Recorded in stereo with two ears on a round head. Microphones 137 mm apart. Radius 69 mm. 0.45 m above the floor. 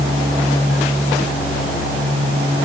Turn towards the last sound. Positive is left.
No sound to turn to.